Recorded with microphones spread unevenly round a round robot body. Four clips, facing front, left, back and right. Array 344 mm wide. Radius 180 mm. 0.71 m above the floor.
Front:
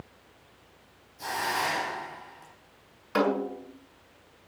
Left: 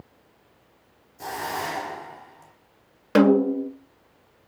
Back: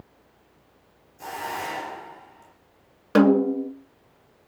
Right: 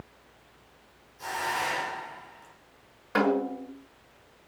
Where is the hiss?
80° left, 4 m.